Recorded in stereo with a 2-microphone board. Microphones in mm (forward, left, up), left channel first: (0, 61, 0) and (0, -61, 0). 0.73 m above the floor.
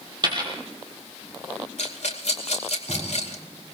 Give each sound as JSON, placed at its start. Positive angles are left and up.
{"t": 0.2, "sound": "a dropped coin", "side_deg": -35, "distance_m": 4.0}
{"t": 1.8, "sound": "a rattle", "side_deg": 65, "distance_m": 2.5}